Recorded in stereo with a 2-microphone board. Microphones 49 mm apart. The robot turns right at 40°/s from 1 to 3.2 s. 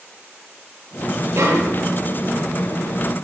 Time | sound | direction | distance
1.4 | a snare drum | 55° right (ahead or behind) | 5 m